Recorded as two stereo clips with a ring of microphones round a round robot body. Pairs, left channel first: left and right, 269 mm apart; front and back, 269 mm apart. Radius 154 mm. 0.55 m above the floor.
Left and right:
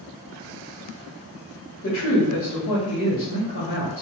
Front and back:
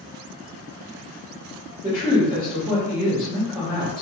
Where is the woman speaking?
100° left, 1.2 m.